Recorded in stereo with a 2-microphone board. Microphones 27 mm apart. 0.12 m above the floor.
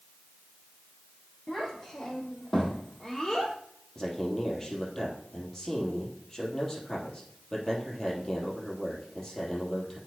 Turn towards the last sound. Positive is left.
turn(degrees=10)  # may be behind; listen again after turning